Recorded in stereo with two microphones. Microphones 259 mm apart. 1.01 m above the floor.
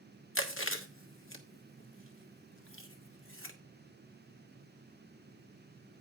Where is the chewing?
50° left (ahead or behind), 1.2 m.